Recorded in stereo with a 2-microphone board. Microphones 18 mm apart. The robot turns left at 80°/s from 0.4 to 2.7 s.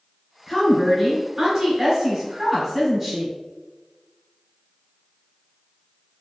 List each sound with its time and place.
0.5 s a woman speaking: 15° left (ahead or behind), 1.4 m; by 3.4 s 15° right (ahead or behind), 1.4 m